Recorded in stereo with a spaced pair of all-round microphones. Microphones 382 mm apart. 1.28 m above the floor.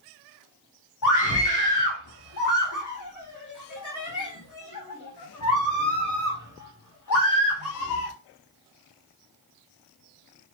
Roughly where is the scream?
Left.